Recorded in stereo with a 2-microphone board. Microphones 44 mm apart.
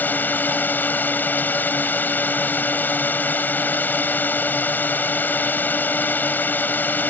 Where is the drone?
40° left (ahead or behind).